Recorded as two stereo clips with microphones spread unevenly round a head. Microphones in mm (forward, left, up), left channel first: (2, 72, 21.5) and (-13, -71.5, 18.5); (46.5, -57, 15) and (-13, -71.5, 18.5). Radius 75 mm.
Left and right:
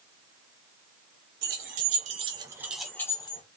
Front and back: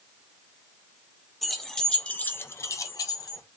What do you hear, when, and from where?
1.4 s keys jangling: 75° right, 0.9 m; by 3.4 s 30° left, 0.7 m